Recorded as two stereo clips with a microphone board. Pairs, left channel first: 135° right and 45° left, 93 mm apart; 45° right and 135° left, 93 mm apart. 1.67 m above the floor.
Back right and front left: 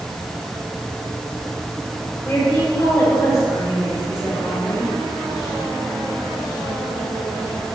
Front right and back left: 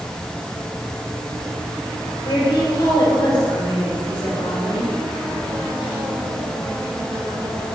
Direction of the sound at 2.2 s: 80° right.